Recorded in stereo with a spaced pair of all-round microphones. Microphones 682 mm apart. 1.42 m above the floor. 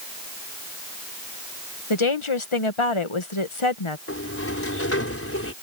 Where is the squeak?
I don't hear a squeak.